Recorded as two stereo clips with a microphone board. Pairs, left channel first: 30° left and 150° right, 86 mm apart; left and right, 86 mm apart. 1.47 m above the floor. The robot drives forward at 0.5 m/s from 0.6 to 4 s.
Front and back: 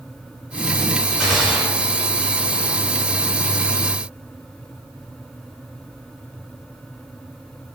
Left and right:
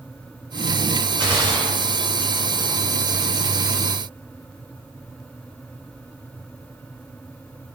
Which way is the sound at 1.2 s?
60° right.